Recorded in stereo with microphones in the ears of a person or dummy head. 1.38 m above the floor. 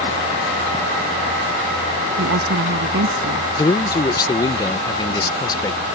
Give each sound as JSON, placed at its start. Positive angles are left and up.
{"t": 2.2, "sound": "a woman speaking", "side_deg": -65}
{"t": 3.6, "sound": "a man speaking", "side_deg": 20}